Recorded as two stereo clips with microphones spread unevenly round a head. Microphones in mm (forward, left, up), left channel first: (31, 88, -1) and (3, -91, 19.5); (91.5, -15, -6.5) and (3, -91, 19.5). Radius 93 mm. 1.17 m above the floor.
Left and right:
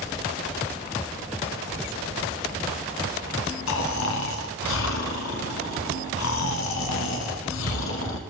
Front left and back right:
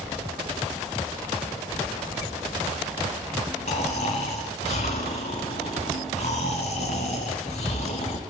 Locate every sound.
3.7 s snoring: 95° left, 2.5 m